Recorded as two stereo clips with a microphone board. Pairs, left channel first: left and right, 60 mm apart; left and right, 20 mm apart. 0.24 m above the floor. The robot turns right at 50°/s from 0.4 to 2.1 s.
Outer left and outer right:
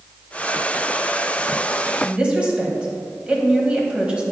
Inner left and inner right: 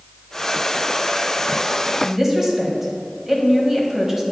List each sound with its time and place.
2.0 s a woman speaking: 20° right (ahead or behind), 1.1 m